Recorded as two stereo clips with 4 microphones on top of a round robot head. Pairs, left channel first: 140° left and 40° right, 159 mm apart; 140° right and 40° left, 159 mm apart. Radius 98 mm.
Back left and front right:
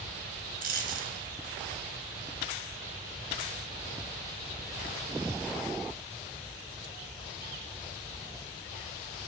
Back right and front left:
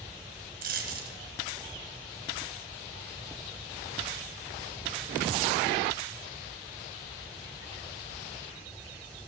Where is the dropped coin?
Straight ahead, 3.5 m.